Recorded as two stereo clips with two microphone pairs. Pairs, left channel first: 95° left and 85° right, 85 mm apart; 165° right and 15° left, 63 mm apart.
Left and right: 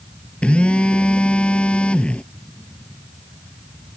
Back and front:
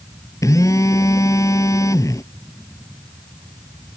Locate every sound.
0.4 s a phone buzzing: 170° left